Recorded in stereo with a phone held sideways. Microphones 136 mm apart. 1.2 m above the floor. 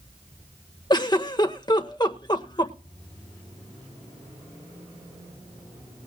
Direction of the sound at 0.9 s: 30° left (ahead or behind).